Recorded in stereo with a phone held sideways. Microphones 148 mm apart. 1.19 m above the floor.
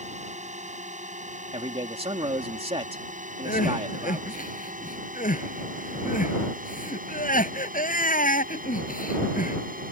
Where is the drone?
55° right (ahead or behind); by 9.9 s 70° right (ahead or behind).